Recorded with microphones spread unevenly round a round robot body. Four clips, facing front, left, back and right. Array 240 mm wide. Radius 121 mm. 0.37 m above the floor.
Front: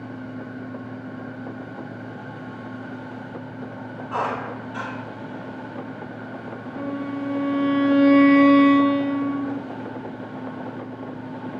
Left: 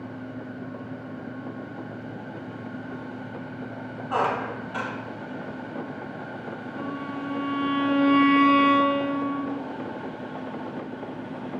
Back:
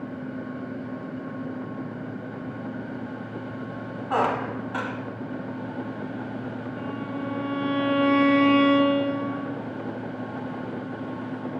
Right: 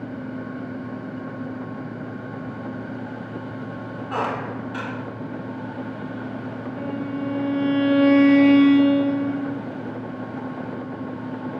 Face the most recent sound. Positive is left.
turn(degrees=-45)